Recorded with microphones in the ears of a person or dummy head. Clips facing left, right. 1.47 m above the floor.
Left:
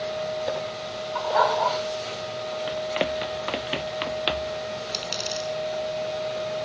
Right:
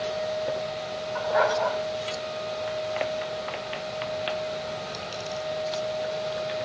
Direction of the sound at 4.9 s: 70° left (ahead or behind).